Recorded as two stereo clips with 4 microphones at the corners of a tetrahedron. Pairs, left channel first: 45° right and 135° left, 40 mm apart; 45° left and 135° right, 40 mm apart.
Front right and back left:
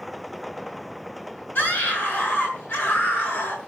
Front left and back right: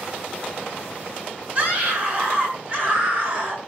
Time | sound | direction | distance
1.6 | a scream | 75° right | 6.5 m